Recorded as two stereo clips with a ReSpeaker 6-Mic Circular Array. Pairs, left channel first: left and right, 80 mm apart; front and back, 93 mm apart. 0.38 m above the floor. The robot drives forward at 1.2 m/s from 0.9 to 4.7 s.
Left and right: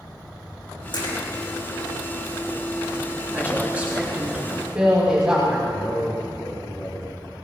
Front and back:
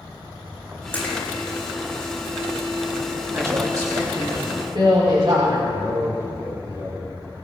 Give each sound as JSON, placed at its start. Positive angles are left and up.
{"t": 0.9, "sound": "a splash", "azimuth_deg": 70, "distance_m": 5.5}
{"t": 3.3, "sound": "a woman speaking", "azimuth_deg": -145, "distance_m": 1.5}
{"t": 5.7, "sound": "a man speaking", "azimuth_deg": 135, "distance_m": 2.5}